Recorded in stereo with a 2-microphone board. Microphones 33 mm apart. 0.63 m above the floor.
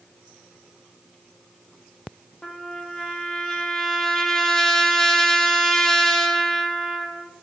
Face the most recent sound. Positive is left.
turn(degrees=15)  # may be behind; listen again after turning